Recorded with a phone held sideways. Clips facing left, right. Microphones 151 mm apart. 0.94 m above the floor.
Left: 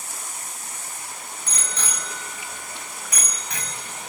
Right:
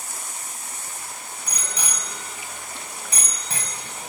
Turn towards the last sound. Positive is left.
turn(degrees=-40)  # may be behind; listen again after turning